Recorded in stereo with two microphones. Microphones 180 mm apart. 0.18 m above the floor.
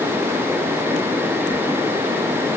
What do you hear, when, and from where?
Only background noise.